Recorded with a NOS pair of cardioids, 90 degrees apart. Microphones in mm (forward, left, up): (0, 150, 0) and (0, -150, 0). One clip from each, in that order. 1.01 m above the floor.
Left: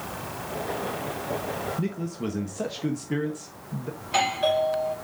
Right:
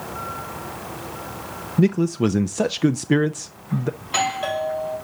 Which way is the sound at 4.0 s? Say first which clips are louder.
Left 1 dB; 10° right.